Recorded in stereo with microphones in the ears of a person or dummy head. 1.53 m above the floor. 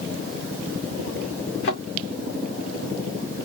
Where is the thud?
65° left (ahead or behind), 2 m.